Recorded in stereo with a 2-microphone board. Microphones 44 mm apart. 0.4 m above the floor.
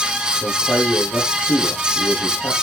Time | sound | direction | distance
0.4 | a man speaking | 70° left (ahead or behind) | 9.5 m